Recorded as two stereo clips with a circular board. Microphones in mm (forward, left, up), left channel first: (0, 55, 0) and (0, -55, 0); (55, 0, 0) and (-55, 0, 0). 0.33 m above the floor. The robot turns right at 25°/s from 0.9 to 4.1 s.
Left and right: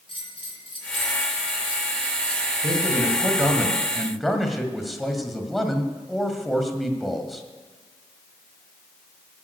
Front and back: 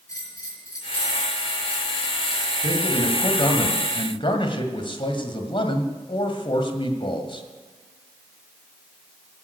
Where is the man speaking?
35° right, 1.6 m; by 7.4 s straight ahead, 1.6 m.